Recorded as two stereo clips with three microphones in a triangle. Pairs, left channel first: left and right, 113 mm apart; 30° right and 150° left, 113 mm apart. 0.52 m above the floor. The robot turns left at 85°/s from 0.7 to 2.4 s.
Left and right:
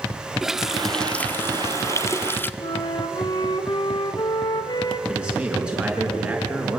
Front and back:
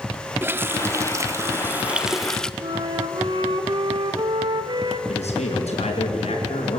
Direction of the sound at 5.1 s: 10° right.